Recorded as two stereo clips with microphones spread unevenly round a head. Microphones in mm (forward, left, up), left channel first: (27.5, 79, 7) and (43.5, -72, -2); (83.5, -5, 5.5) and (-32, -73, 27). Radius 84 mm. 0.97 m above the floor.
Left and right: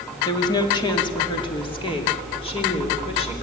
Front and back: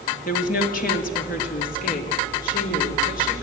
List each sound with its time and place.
0.2 s a woman speaking: 30° left, 2 m; by 3.4 s 45° left, 3.5 m